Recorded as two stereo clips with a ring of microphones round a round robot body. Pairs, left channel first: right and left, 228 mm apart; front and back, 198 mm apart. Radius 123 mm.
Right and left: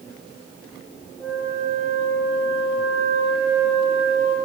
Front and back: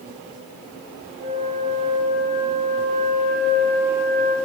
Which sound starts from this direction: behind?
A flute, at 1.2 s.